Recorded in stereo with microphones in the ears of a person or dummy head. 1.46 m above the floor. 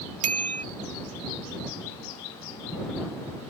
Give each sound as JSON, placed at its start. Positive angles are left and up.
{"t": 0.2, "sound": "a bicycle bell", "side_deg": -35}